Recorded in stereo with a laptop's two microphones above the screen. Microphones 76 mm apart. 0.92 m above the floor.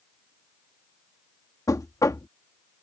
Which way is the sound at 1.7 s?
50° left (ahead or behind).